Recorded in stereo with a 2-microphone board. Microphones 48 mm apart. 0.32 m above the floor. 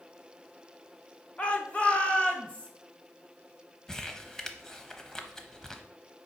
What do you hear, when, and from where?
1.4 s a shout: 25° left (ahead or behind), 1.0 m
3.9 s crumpling: 10° left (ahead or behind), 0.8 m